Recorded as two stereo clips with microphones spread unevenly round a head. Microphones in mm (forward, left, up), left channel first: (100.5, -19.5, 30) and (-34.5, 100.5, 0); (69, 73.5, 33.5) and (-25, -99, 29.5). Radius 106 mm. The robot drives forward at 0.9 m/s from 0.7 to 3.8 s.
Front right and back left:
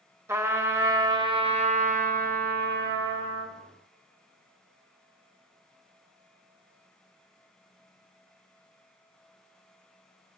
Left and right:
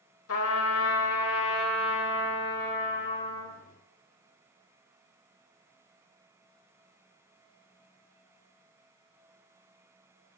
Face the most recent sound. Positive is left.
turn(degrees=135)